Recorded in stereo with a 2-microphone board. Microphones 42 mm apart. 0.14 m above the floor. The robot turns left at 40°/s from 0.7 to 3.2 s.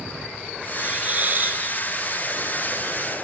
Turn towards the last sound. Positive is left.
turn(degrees=-140)